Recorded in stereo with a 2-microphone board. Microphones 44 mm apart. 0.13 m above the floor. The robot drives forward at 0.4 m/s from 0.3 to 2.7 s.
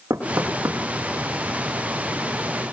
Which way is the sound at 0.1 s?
75° right (ahead or behind).